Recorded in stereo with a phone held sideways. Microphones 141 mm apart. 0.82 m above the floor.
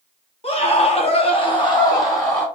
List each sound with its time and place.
0.4 s a scream: 45° left (ahead or behind), 0.9 m; by 2.5 s 20° left (ahead or behind), 1.3 m